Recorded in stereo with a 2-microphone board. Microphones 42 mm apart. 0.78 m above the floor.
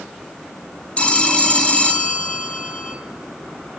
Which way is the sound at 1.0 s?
30° left (ahead or behind).